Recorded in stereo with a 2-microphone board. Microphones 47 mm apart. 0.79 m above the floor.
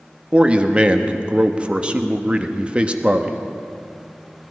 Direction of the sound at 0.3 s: 25° right (ahead or behind).